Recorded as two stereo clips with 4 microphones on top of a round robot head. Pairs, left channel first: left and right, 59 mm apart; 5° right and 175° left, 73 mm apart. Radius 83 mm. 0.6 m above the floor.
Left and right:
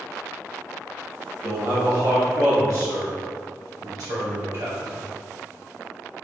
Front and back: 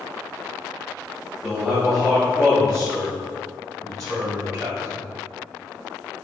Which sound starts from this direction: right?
A man speaking, at 1.4 s.